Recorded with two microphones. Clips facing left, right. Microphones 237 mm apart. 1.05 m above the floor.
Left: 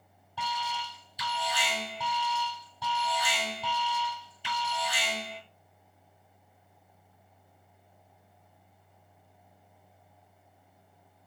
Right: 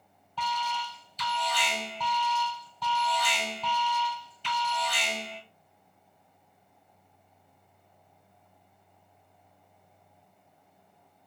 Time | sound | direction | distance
0.4 | an alarm | 10° left (ahead or behind) | 1.7 m